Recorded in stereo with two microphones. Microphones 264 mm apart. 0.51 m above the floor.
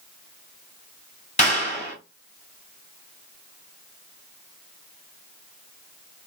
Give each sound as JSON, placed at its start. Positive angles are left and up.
{"t": 1.4, "sound": "a clap", "side_deg": 25, "distance_m": 2.5}